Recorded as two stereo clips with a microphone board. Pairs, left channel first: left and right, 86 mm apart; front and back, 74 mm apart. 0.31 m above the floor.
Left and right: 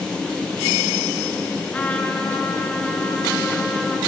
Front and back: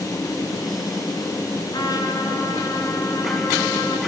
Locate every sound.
1.7 s a trumpet: 15° left, 2.5 m